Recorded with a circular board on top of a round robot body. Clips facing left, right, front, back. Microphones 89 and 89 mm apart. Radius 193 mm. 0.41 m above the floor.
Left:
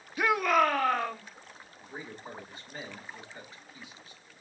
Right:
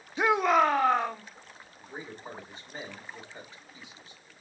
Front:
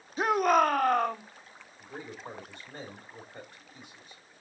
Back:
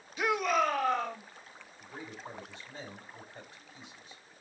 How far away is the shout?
About 0.9 m.